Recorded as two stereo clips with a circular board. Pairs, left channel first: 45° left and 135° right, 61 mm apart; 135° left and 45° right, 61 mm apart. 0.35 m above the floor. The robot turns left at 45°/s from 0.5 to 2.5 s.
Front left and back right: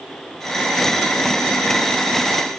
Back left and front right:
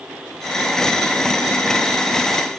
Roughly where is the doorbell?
I don't hear a doorbell.